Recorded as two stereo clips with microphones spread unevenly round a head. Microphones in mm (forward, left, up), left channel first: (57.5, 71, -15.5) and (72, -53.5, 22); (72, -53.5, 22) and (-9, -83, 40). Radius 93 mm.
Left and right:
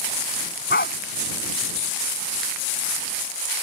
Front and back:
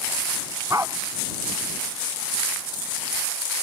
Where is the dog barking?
130° left.